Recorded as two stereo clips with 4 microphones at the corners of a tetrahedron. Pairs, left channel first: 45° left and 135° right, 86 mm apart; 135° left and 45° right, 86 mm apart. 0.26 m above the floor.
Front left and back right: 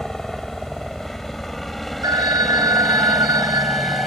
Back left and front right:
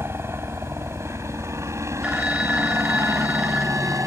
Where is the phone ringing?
120° right.